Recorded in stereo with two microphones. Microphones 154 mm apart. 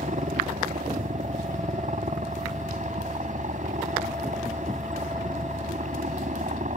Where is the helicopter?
55° right (ahead or behind).